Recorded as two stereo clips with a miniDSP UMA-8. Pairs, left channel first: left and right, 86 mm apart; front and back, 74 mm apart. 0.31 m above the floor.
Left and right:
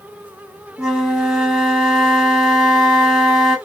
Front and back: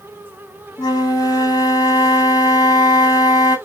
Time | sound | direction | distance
0.8 | a flute | 10° right | 1.8 m